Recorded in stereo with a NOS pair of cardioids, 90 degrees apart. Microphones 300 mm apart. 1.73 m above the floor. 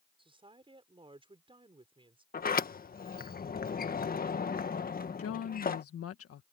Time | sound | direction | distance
0.2 | a woman speaking | 15° right | ?
2.3 | a sliding door | 30° left | ?
5.2 | a woman speaking | 55° left | ?